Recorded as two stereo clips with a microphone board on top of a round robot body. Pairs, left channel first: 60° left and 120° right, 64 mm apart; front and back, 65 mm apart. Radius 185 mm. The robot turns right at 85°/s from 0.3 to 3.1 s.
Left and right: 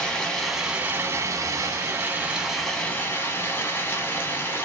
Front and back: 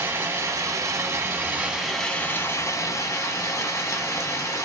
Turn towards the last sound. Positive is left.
turn(degrees=15)